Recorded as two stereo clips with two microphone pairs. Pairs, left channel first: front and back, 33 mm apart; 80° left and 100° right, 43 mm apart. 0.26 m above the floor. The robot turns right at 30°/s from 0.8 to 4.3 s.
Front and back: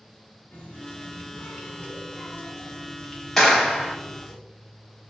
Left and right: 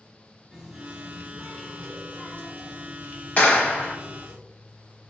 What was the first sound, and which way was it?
A running tap, 10° right.